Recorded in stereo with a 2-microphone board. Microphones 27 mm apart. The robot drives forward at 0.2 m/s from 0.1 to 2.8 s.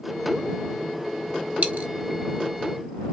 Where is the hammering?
I don't hear hammering.